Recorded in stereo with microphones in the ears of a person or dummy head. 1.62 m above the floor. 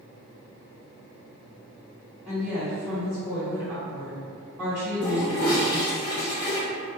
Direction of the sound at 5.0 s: 20° left (ahead or behind).